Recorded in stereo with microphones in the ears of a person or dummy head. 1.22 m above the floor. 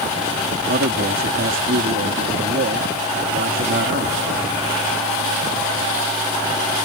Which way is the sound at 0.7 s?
45° right (ahead or behind).